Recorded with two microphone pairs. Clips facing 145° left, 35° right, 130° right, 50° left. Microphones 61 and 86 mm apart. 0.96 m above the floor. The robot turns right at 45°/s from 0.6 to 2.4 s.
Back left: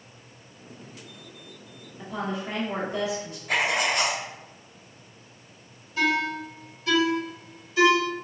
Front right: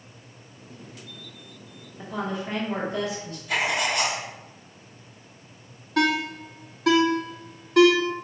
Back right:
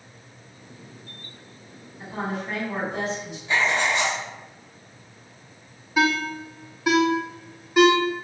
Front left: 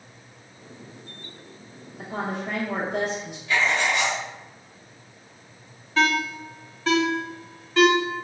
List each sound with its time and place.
2.0 s a woman speaking: 40° left, 1.3 m; by 3.4 s 60° left, 1.3 m
3.5 s writing: 175° left, 1.2 m
6.0 s a ringtone: 55° right, 0.7 m